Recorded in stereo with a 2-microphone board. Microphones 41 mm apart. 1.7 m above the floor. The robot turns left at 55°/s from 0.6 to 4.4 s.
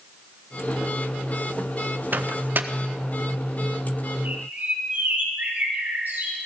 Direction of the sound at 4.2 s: 50° right (ahead or behind).